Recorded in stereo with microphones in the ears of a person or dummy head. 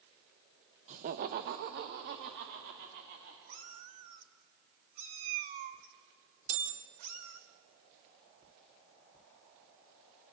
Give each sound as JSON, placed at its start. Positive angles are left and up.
{"t": 0.9, "sound": "laughter", "side_deg": -40, "distance_m": 0.7}
{"t": 3.5, "sound": "a cat meowing", "side_deg": -30, "distance_m": 1.0}
{"t": 6.5, "sound": "a bell", "side_deg": -40, "distance_m": 3.0}